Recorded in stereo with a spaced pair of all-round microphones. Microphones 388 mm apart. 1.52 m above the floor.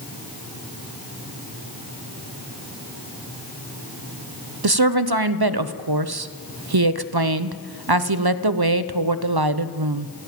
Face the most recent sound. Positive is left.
turn(degrees=-70)  # may be behind; listen again after turning